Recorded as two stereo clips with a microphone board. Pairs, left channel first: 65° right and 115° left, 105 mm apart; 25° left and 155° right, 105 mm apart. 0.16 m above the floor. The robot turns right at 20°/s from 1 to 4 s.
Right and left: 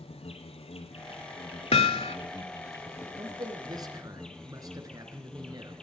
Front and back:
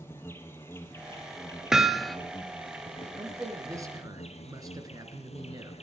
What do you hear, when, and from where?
0.0 s an insect: 45° right, 1.9 m; by 5.8 s 15° left, 1.9 m
1.7 s hammering: 70° right, 0.7 m; by 2.2 s 65° right, 0.7 m
3.2 s a man speaking: 140° left, 2.5 m; by 5.7 s 155° left, 2.5 m